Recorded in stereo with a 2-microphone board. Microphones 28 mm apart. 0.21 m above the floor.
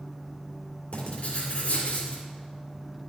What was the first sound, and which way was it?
Writing, 60° left (ahead or behind).